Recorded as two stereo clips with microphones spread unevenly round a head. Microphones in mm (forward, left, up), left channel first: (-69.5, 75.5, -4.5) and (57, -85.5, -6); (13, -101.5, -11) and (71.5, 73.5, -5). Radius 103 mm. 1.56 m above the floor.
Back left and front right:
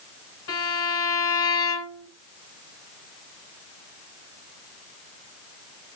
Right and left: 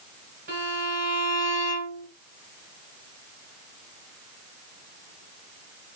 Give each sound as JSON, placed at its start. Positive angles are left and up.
{"t": 0.5, "sound": "a violin", "azimuth_deg": 115, "distance_m": 3.5}